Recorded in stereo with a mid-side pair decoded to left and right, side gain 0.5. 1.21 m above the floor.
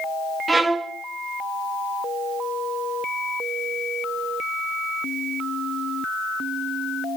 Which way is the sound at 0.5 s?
25° right.